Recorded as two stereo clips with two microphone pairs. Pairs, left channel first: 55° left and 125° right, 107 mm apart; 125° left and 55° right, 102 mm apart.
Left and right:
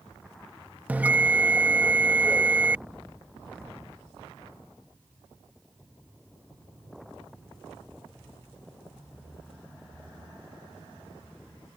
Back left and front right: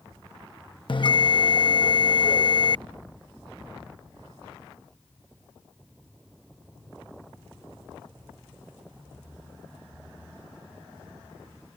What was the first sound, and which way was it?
A bell, 165° left.